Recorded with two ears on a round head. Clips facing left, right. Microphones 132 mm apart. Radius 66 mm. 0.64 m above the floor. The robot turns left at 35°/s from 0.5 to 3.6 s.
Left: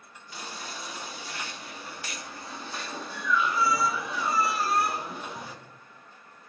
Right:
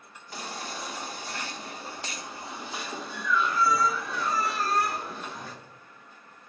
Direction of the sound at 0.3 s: 85° right.